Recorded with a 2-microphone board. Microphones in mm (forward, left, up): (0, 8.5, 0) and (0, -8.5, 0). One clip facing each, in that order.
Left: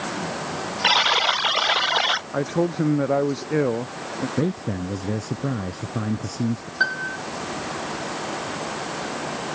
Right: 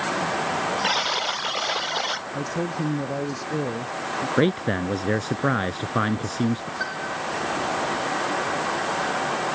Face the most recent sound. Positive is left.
turn(degrees=35)  # may be behind; listen again after turning